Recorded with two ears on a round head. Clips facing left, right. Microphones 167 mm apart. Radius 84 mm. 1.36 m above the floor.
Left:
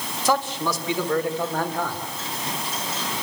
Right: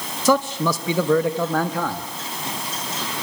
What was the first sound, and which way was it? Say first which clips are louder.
A man speaking: right 5 dB; 80° right.